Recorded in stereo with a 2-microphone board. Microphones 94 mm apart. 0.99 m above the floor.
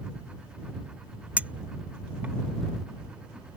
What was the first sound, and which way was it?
A clink, 15° right (ahead or behind).